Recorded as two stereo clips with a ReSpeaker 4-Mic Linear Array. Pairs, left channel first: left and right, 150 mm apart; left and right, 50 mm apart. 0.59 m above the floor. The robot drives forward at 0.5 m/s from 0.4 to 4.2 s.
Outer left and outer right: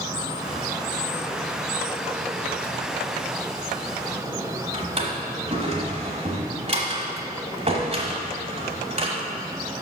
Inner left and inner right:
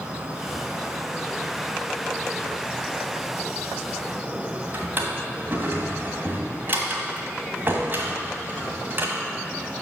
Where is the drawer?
40° right (ahead or behind), 1.2 m.